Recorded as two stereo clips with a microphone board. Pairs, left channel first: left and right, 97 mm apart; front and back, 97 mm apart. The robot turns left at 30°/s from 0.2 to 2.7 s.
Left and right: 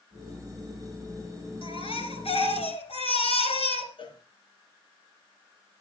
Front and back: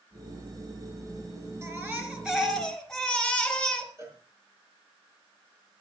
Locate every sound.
1.6 s a baby crying: 115° left, 4 m; by 3.9 s 85° left, 4 m
4.0 s a cowbell: 120° left, 5 m